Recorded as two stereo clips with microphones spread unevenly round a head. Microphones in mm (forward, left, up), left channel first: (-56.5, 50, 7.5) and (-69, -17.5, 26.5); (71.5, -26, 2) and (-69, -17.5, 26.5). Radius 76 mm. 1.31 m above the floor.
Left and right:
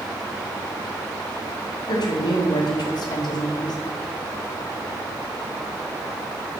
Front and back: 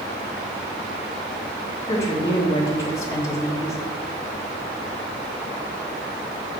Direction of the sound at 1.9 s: 65° left.